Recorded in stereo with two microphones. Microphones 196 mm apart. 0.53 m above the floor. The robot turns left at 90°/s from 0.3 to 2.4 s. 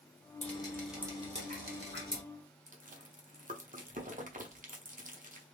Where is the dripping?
45° left, 1.2 m; by 2.2 s 120° right, 1.2 m.